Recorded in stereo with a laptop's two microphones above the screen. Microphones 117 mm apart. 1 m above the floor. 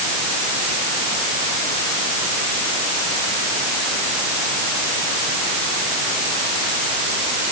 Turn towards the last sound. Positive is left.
No sound to turn to.